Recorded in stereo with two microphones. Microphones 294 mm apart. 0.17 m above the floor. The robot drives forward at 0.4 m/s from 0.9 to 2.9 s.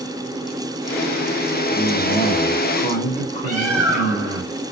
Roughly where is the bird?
Left.